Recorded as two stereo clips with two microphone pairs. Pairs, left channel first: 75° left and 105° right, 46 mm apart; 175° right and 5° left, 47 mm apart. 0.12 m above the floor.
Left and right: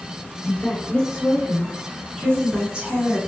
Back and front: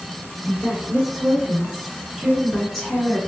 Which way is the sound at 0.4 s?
25° left.